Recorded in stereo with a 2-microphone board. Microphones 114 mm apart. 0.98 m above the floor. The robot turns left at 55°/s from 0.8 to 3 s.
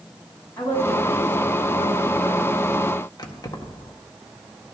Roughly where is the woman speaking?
Behind.